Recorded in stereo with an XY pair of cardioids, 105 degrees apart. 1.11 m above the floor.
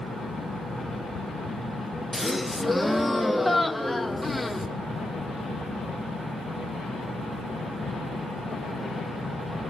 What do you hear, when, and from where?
0.0 s a fan: 45° right, 4 m
2.1 s a gasp: straight ahead, 0.7 m